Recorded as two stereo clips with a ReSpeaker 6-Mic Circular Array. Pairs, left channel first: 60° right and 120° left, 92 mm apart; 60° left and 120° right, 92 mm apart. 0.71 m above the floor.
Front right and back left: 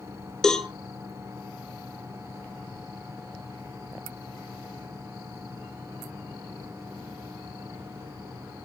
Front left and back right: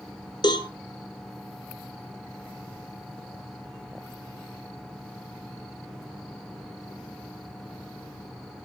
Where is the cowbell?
25° left, 1.1 m.